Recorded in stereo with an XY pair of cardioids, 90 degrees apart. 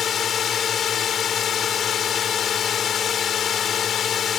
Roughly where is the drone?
Ahead left.